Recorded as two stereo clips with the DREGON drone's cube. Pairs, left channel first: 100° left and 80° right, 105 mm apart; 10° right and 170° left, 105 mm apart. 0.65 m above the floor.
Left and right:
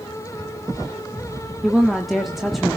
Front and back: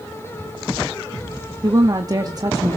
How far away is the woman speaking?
About 1.4 m.